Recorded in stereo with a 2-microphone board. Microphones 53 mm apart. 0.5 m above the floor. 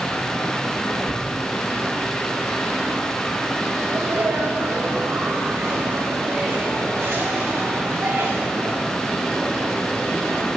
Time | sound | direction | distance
1.1 | tearing paper | 20° right (ahead or behind) | 1.5 m
3.8 | a sneeze | 65° right (ahead or behind) | 3 m